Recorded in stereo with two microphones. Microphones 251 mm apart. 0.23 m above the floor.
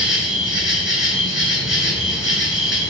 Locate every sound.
0.0 s an insect: 50° left (ahead or behind), 0.9 m